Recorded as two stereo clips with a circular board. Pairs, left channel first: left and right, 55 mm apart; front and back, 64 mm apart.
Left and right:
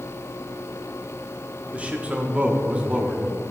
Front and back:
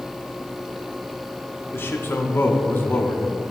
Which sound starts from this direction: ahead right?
A man speaking, at 1.7 s.